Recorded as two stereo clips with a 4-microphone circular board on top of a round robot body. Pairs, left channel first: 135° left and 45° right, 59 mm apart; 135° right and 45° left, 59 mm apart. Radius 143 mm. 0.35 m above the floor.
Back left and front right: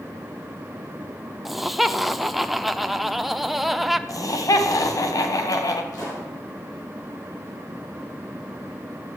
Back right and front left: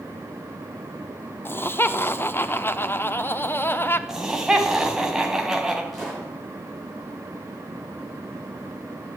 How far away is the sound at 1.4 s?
About 1.3 m.